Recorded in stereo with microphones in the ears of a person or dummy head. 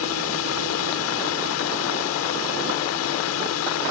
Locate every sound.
0.0 s a drone: 80° left